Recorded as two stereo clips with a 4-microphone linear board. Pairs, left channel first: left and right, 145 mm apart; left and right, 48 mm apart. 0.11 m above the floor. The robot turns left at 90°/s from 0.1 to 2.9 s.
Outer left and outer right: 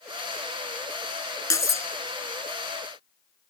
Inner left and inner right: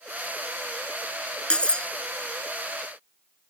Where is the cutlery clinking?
20° left (ahead or behind), 0.7 m.